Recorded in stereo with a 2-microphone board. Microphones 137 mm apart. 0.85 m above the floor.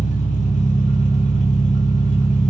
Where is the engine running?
60° left (ahead or behind), 1.0 m.